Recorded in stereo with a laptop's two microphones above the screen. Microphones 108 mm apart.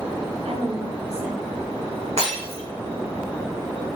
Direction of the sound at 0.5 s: 70° right (ahead or behind).